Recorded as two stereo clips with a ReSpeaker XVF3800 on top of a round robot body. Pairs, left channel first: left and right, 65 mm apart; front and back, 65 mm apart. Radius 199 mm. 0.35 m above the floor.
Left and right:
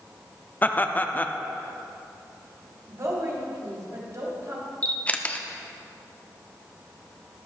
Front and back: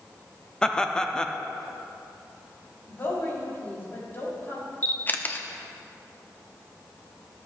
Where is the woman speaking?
55° right, 4 m.